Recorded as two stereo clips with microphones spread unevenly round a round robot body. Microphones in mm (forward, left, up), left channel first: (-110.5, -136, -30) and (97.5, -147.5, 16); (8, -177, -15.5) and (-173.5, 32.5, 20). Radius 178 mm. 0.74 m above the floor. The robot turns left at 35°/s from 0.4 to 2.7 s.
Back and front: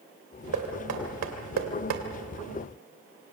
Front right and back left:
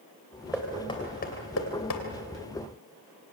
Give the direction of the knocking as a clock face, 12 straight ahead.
11 o'clock.